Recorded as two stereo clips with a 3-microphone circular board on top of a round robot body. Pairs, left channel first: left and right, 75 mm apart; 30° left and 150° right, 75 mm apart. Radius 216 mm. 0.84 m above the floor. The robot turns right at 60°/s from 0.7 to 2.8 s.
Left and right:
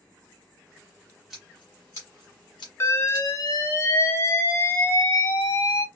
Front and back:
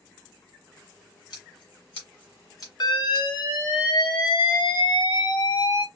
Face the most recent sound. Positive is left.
turn(degrees=40)